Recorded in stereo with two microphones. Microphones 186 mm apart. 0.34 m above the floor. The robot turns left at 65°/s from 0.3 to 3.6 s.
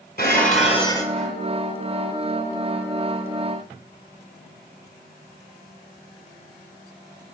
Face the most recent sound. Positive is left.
turn(degrees=-155)